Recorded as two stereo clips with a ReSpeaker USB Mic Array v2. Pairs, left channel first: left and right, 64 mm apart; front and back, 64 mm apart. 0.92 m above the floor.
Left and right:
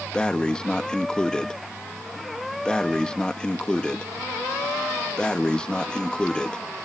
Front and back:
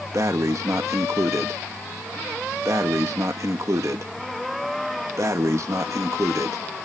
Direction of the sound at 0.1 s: 165° left.